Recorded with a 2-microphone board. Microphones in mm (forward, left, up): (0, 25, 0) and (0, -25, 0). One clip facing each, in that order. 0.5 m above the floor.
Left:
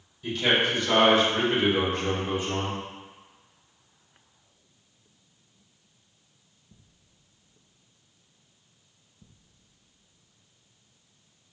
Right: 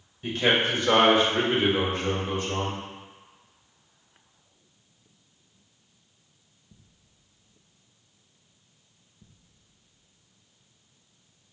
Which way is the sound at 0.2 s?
35° right (ahead or behind).